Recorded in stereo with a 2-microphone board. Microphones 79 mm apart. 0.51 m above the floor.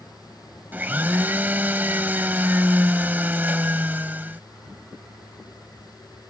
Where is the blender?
20° right (ahead or behind).